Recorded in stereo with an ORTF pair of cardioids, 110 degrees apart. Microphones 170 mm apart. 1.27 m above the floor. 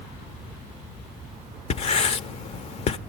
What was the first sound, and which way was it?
Writing, 40° left.